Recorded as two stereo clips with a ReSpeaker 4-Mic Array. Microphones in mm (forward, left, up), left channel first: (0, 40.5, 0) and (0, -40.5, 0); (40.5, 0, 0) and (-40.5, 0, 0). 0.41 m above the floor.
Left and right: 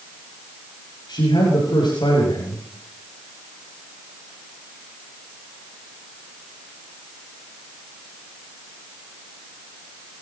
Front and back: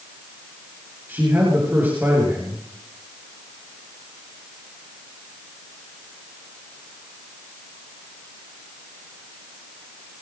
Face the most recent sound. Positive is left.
turn(degrees=115)